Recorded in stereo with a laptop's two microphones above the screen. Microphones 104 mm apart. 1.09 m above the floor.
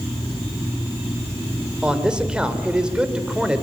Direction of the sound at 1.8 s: 10° right (ahead or behind).